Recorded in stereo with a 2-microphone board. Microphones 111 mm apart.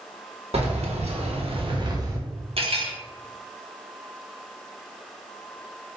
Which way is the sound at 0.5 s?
70° right (ahead or behind).